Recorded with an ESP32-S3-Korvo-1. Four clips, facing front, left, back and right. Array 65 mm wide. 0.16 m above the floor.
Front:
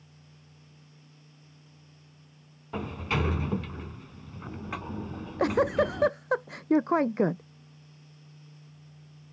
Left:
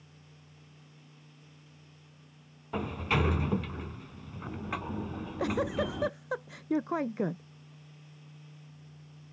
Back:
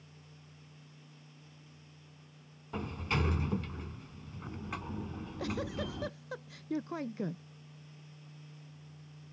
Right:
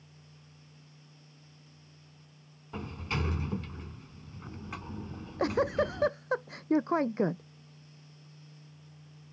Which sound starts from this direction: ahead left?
A sliding door, at 2.7 s.